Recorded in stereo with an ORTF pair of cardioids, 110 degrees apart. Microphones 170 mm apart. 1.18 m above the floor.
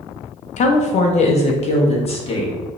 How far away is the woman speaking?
About 0.8 m.